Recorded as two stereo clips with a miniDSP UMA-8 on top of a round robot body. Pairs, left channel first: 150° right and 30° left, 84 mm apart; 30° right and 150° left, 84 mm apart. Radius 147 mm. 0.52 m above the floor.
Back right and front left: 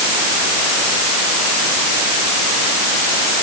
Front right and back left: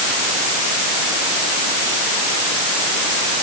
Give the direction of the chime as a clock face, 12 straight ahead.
No chime in this recording.